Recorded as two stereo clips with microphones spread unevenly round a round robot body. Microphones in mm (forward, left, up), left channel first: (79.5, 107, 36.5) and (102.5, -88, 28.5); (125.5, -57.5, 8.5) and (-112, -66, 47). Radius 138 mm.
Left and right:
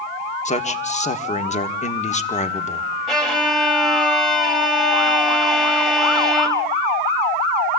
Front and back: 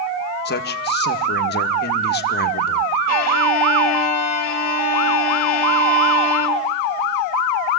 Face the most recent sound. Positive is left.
turn(degrees=5)